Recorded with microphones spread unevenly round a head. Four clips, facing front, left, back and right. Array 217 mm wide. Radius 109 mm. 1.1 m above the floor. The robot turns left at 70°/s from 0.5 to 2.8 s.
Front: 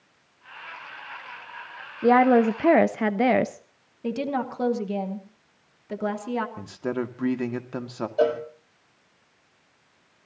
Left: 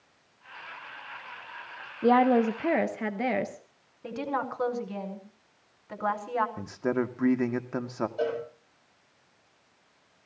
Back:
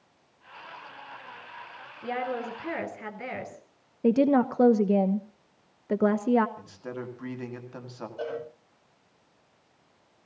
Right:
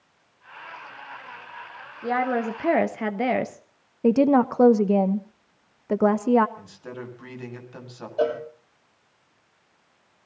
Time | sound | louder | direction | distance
2.0 | a woman speaking | left 3 dB, front 14 dB | 40° left | 0.9 m
4.0 | a woman speaking | right 14 dB, back 6 dB | 115° right | 1.0 m
6.6 | a man speaking | left 10 dB, front 9 dB | 50° left | 2 m
8.2 | a cowbell | right 7 dB, front 12 dB | 20° right | 6 m